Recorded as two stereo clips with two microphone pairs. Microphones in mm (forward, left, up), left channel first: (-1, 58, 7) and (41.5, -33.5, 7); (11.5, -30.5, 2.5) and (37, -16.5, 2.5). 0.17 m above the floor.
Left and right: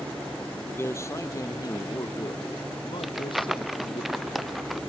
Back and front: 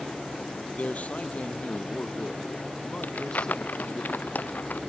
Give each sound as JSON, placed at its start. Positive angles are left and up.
{"t": 0.7, "sound": "a man speaking", "azimuth_deg": 180}
{"t": 3.0, "sound": "crumpling", "azimuth_deg": -155}